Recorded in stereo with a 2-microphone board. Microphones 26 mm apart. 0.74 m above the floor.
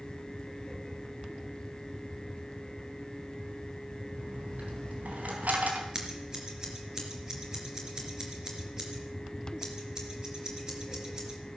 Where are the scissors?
20° right (ahead or behind), 3 m.